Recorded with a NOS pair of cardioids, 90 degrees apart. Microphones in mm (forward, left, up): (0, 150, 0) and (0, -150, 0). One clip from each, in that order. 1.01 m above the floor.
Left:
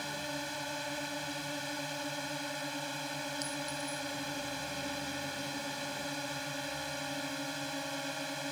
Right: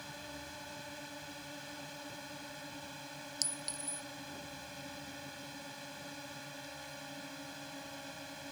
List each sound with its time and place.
0.0 s a drone: 60° left
3.4 s a clink: 65° right